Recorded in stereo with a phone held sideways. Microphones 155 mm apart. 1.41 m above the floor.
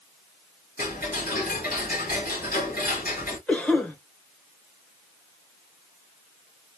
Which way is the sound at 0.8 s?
70° left (ahead or behind).